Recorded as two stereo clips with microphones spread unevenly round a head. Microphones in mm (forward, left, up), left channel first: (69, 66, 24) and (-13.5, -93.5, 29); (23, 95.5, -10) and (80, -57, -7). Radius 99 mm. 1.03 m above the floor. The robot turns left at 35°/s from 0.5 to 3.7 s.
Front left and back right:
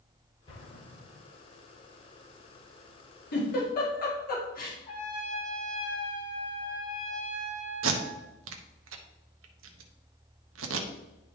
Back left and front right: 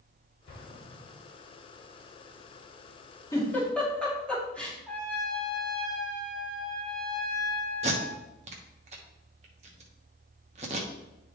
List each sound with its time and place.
0.5 s an explosion: 130° left, 2.5 m; by 1.3 s 100° left, 2.5 m
3.3 s a giggle: 40° left, 2.5 m; by 4.8 s 30° left, 2.5 m
4.9 s a trumpet: 25° left, 3 m
7.8 s tape being pulled: 130° right, 0.9 m